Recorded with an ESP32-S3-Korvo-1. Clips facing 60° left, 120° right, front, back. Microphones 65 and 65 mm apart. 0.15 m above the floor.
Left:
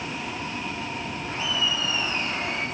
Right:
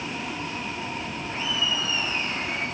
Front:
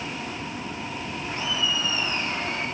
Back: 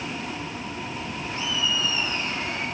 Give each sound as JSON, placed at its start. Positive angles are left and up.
{"t": 1.3, "sound": "laughter", "azimuth_deg": 50, "distance_m": 8.5}